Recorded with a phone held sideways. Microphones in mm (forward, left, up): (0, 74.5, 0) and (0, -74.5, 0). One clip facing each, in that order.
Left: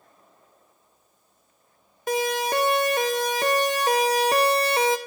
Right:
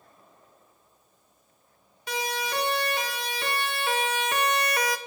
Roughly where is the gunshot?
I don't hear a gunshot.